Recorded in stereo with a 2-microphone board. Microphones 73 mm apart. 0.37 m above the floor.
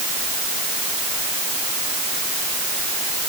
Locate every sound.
Only background noise.